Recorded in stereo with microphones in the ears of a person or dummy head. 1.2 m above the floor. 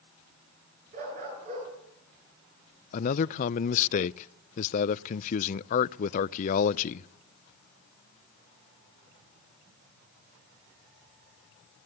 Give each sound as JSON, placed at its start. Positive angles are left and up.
{"t": 0.9, "sound": "a dog barking", "side_deg": -50, "distance_m": 8.0}
{"t": 2.9, "sound": "a man speaking", "side_deg": 45, "distance_m": 0.5}